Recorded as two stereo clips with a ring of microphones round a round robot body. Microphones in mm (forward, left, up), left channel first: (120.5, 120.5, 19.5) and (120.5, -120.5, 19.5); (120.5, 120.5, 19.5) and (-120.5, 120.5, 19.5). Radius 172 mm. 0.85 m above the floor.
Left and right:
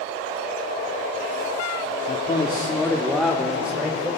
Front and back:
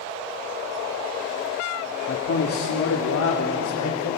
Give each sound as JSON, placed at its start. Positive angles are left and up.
{"t": 2.1, "sound": "a man speaking", "azimuth_deg": 35, "distance_m": 1.8}